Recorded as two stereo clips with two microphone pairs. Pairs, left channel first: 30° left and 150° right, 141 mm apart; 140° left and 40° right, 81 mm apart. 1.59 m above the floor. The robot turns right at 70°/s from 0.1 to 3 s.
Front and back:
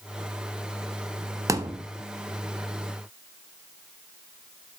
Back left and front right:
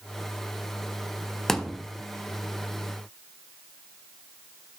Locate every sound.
1.5 s a thud: 140° right, 0.9 m; by 1.8 s 115° right, 0.9 m